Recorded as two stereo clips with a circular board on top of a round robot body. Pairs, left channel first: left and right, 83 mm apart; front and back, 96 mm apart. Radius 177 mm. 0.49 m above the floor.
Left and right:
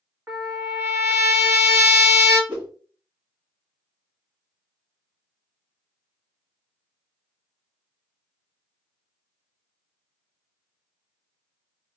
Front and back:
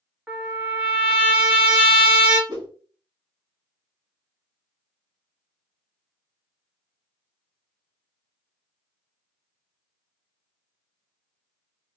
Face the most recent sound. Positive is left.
turn(degrees=-150)